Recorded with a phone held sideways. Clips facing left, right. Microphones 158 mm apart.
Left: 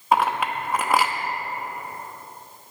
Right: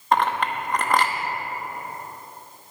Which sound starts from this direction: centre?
A clink, at 0.1 s.